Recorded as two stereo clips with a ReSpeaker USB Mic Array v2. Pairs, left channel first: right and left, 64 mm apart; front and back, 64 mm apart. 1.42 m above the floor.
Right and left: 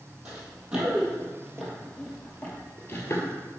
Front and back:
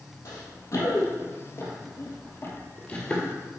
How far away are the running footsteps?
About 3 m.